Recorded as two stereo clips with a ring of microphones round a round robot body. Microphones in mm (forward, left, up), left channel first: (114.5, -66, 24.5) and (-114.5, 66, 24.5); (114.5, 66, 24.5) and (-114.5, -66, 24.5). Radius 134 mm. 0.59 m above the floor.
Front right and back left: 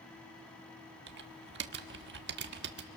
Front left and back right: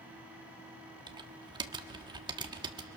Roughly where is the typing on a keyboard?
Behind left.